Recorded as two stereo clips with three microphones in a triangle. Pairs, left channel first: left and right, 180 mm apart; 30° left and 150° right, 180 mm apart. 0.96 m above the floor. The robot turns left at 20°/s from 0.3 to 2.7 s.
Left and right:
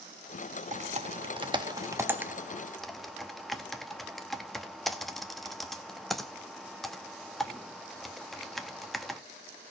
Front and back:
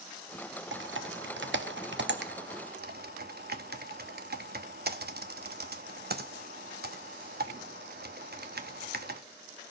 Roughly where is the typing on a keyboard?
Behind right.